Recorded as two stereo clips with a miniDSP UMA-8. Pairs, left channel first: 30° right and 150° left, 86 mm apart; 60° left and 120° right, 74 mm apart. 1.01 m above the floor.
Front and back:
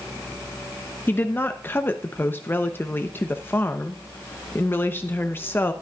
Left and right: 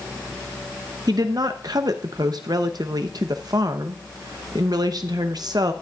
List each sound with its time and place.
1.1 s a woman speaking: 95° right, 0.6 m